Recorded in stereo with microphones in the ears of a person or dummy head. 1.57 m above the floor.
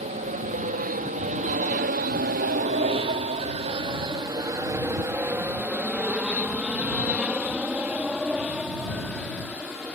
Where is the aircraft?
40° right (ahead or behind); by 9.9 s 10° left (ahead or behind).